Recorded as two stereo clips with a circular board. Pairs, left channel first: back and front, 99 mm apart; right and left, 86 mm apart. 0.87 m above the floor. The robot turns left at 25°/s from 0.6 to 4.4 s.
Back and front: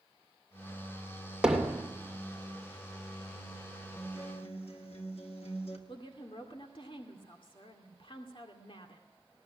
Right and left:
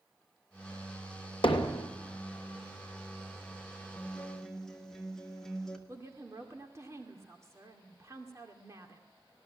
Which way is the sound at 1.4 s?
85° right.